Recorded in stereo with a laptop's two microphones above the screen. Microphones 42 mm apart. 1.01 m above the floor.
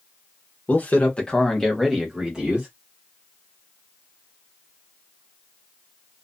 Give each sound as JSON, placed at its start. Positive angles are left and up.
{"t": 0.7, "sound": "a man speaking", "side_deg": 45, "distance_m": 0.8}